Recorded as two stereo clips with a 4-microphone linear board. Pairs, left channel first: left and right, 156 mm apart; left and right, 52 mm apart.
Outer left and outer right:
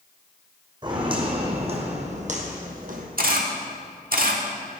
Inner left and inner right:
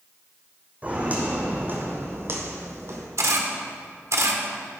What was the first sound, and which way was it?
Footsteps, 30° right (ahead or behind).